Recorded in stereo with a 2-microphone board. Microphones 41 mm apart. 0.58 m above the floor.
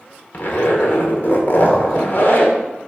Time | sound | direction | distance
0.3 | a zipper | 55° left (ahead or behind) | 1.6 m